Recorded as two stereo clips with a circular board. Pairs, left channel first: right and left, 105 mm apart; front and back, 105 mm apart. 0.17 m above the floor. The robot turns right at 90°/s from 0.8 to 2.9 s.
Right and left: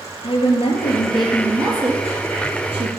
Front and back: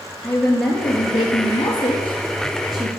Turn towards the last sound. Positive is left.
turn(degrees=105)